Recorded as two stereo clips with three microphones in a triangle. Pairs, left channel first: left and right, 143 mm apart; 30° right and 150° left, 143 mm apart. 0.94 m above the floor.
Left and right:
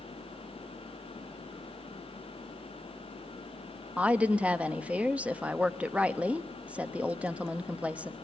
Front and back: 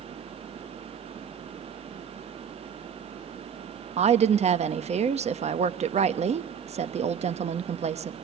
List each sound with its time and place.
4.0 s a woman speaking: 170° right, 0.9 m